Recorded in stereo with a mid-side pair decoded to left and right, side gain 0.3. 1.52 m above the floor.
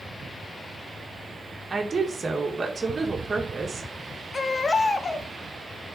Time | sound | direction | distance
1.7 | a woman speaking | 35° right | 2 m
4.3 | a baby crying | 45° left | 1.2 m